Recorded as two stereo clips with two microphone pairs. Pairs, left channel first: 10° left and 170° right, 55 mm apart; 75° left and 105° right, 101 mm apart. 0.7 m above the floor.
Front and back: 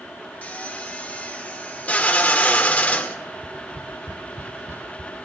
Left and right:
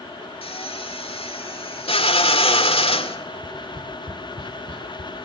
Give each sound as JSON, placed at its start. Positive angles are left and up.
{"t": 0.4, "sound": "a drill", "azimuth_deg": 70, "distance_m": 2.0}
{"t": 3.3, "sound": "tapping", "azimuth_deg": -140, "distance_m": 2.0}